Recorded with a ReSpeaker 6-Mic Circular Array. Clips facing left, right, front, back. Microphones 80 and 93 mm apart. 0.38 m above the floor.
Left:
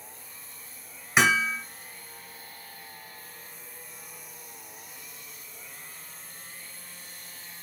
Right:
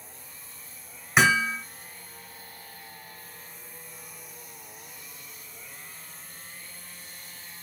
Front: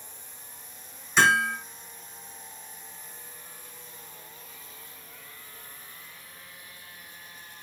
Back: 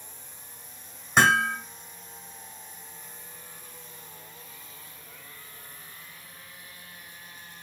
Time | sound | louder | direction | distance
1.2 | hammering | right 1 dB, back 1 dB | straight behind | 1.7 m